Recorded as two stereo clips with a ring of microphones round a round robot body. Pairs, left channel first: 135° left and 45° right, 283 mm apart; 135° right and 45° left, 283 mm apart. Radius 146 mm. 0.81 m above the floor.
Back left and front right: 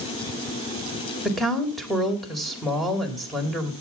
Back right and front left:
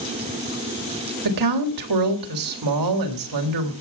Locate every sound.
1.2 s a woman speaking: 45° left, 3.5 m